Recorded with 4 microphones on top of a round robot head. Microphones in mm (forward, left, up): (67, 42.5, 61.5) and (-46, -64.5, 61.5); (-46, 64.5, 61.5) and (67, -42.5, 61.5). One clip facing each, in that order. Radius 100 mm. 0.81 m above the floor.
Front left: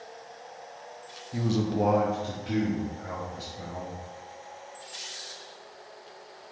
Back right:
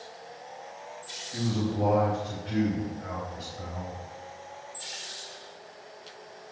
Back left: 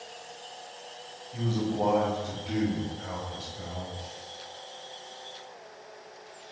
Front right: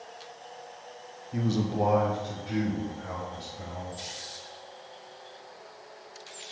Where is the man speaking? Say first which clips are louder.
Front left 2 dB, front right 1 dB; 20° right, 0.9 m; by 4.0 s 90° left, 4 m.